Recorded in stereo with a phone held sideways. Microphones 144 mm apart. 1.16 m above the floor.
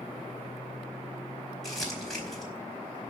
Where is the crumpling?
Centre (ahead or behind), 4.5 m.